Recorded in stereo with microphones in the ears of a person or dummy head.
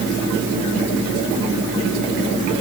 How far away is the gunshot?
No gunshot in this recording.